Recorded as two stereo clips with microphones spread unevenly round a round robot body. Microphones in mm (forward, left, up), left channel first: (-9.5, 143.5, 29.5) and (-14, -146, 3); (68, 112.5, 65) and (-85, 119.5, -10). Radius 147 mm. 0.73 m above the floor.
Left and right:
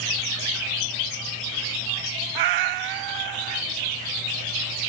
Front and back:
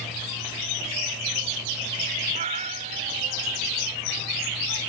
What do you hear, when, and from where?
2.4 s a cat meowing: 110° right